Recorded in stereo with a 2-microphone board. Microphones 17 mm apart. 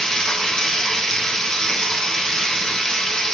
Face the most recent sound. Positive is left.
turn(degrees=40)  # may be behind; listen again after turning